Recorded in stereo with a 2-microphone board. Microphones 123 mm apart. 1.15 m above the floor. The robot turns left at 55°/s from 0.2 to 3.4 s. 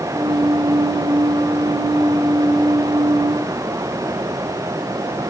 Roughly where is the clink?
I don't hear a clink.